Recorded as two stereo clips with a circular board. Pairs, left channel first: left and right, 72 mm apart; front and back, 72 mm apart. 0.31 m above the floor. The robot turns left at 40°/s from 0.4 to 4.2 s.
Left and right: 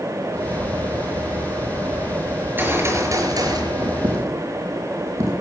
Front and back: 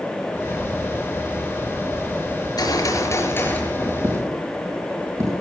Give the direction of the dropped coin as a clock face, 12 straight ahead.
4 o'clock.